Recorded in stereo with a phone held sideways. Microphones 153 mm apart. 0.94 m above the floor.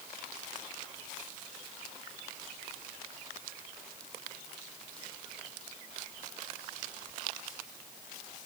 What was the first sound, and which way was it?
Only background noise.